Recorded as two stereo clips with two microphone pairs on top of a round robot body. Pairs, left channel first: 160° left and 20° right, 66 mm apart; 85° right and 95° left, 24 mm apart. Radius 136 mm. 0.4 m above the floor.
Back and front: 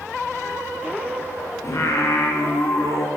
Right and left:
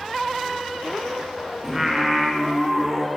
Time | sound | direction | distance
1.6 | singing | 155° left | 0.6 m